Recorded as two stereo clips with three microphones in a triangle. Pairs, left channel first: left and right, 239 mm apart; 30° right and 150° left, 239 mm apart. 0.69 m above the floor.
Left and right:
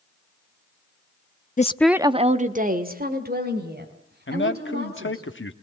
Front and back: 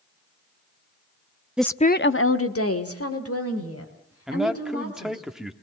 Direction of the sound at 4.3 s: 60° left.